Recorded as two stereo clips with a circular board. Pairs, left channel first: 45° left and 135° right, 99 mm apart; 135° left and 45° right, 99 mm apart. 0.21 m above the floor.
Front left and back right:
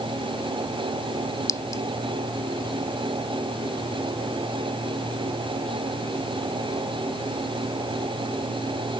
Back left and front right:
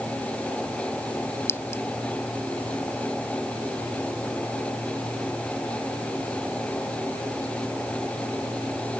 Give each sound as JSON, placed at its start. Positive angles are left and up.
{"t": 1.5, "sound": "a clink", "azimuth_deg": 85}